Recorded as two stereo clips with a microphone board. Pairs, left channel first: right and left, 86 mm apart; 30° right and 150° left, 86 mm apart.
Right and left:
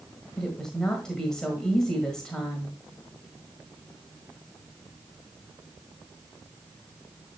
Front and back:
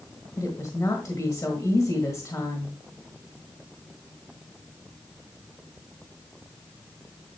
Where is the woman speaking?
10° right, 1.5 m.